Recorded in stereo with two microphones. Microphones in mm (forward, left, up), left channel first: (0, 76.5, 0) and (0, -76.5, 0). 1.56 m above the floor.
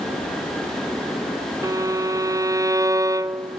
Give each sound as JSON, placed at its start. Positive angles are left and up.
{"t": 1.6, "sound": "a violin", "side_deg": -20, "distance_m": 0.5}